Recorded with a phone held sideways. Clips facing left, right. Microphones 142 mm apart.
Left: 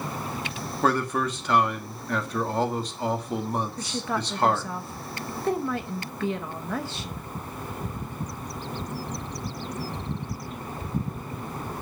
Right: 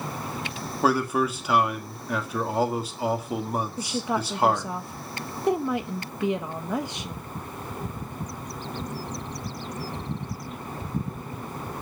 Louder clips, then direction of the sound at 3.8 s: Right 2 dB; 15° right (ahead or behind).